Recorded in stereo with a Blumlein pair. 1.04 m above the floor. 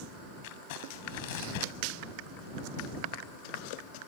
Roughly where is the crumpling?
Ahead left.